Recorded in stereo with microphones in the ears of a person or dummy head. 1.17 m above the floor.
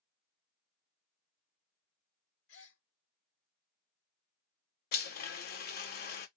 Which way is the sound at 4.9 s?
50° left (ahead or behind).